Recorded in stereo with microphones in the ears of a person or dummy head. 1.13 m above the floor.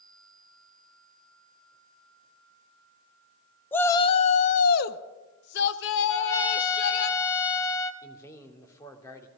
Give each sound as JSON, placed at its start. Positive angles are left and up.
{"t": 3.7, "sound": "a shout", "side_deg": 10, "distance_m": 0.7}
{"t": 6.1, "sound": "a trumpet", "side_deg": 15, "distance_m": 1.5}
{"t": 8.0, "sound": "a man speaking", "side_deg": 15, "distance_m": 3.0}